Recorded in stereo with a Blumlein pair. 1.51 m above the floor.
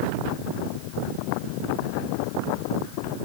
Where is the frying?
I don't hear frying.